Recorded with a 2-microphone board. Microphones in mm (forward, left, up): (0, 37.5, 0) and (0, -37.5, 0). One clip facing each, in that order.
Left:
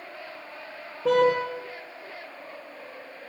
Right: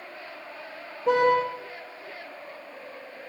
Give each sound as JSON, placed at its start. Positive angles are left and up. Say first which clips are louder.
{"t": 1.1, "sound": "a car horn", "louder": "even", "side_deg": 85, "distance_m": 6.0}